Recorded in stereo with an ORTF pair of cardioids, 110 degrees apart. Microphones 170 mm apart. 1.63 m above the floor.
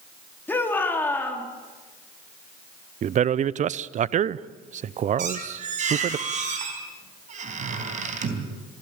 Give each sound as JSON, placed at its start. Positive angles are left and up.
{"t": 0.5, "sound": "a shout", "azimuth_deg": 10, "distance_m": 4.0}
{"t": 3.0, "sound": "a man speaking", "azimuth_deg": -45, "distance_m": 0.7}
{"t": 5.2, "sound": "a squeak", "azimuth_deg": -50, "distance_m": 4.0}